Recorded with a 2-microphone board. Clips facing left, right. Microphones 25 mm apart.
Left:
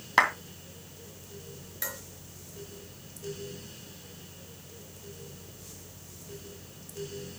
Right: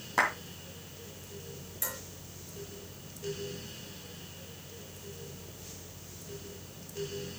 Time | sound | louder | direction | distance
0.2 | a clap | left 5 dB | 60° left (ahead or behind) | 2.5 m
1.8 | dishes clattering | left 2 dB | 35° left (ahead or behind) | 4 m